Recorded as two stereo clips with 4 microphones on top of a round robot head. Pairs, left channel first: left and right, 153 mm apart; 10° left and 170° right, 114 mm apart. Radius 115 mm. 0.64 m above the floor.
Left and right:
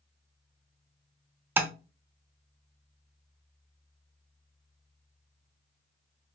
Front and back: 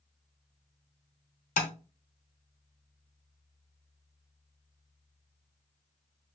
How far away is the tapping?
About 0.8 m.